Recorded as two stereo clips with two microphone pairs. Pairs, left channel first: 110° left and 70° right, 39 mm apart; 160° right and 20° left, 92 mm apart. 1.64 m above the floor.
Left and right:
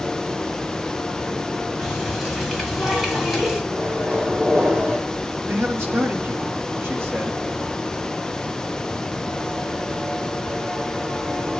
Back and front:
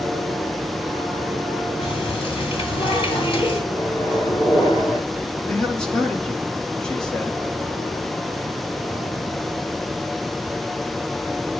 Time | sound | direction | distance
1.8 | a running tap | 150° right | 3.5 m
3.7 | a microwave | 115° right | 4 m
5.5 | a man speaking | 75° right | 3 m